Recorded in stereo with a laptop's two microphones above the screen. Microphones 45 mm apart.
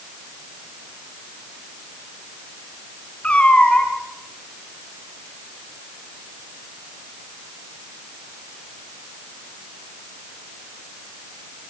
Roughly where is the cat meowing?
Left.